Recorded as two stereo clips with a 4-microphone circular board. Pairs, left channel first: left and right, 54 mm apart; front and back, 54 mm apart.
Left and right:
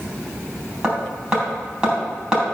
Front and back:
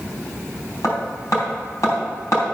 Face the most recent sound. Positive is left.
turn(degrees=-15)